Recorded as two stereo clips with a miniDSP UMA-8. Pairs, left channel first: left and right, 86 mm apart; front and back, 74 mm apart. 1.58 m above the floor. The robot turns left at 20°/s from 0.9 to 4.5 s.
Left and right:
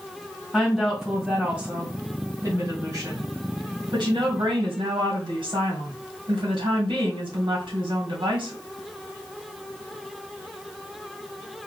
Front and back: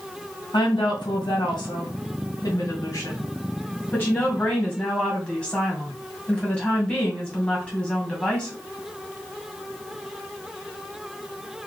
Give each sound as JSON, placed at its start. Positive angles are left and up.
{"t": 0.5, "sound": "a woman speaking", "azimuth_deg": 0, "distance_m": 1.9}